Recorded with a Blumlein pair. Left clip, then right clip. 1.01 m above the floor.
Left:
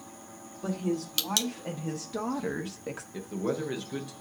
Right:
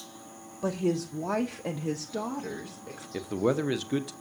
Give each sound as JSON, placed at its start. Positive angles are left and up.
{"t": 0.6, "sound": "a woman speaking", "azimuth_deg": -60, "distance_m": 0.9}
{"t": 3.1, "sound": "a man speaking", "azimuth_deg": -25, "distance_m": 0.7}